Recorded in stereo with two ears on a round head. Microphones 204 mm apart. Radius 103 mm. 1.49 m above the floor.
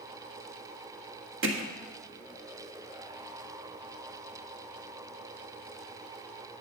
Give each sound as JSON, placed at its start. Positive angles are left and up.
{"t": 1.4, "sound": "hammering", "side_deg": -60, "distance_m": 1.5}